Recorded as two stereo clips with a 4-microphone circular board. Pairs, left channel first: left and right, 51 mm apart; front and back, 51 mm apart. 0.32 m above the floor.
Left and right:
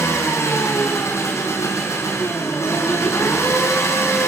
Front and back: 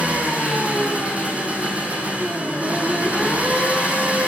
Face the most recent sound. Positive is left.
turn(degrees=115)